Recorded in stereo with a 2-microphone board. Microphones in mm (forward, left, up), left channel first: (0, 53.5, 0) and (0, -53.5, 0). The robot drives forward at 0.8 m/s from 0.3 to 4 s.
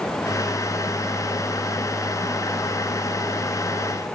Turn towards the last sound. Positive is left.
No sound to turn to.